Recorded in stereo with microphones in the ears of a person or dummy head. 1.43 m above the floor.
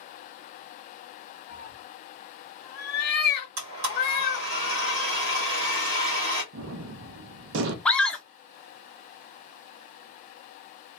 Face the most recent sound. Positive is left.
turn(degrees=5)  # may be behind; listen again after turning